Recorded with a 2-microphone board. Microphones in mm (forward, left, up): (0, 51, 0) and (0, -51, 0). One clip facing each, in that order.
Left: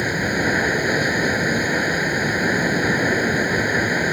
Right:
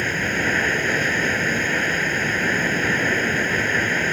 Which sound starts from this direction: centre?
Running water, at 0.0 s.